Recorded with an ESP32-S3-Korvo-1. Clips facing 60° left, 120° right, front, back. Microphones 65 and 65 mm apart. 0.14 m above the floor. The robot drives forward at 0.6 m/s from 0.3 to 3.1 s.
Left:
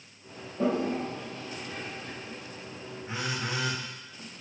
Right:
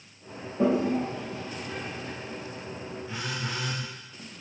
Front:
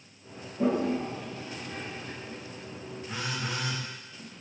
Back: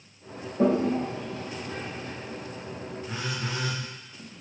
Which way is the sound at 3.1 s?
120° left.